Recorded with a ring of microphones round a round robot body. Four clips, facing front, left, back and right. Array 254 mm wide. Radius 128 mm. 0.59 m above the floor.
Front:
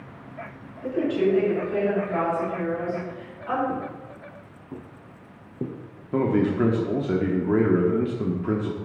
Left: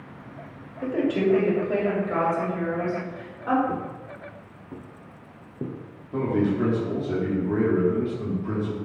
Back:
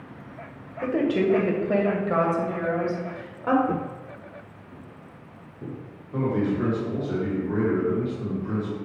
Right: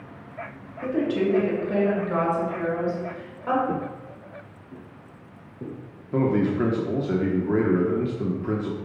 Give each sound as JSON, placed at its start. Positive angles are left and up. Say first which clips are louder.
{"t": 0.8, "sound": "a woman speaking", "louder": "even, even", "azimuth_deg": 160, "distance_m": 2.5}
{"t": 3.7, "sound": "footsteps", "louder": "right 2 dB, back 1 dB", "azimuth_deg": -155, "distance_m": 0.7}
{"t": 6.1, "sound": "a man speaking", "louder": "right 2 dB, front 3 dB", "azimuth_deg": -30, "distance_m": 1.2}